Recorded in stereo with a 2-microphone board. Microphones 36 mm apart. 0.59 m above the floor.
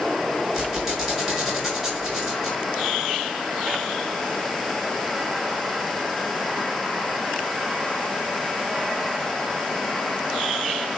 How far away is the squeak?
About 5.5 m.